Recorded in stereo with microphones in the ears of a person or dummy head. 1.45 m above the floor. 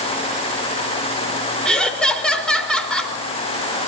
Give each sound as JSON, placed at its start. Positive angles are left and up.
{"t": 1.6, "sound": "laughter", "side_deg": 10, "distance_m": 5.0}